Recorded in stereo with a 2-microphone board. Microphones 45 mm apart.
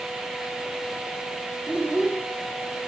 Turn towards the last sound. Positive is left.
turn(degrees=-20)  # may be behind; listen again after turning